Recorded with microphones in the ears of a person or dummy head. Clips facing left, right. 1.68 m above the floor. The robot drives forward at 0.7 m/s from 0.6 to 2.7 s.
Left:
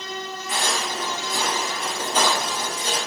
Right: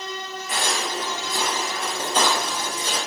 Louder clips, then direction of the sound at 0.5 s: Even; 15° right (ahead or behind).